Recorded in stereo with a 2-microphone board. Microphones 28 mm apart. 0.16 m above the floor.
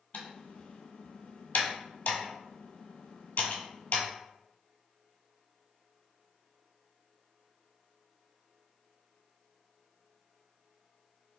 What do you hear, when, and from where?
0.1 s typing on a keyboard: 70° left (ahead or behind), 0.9 m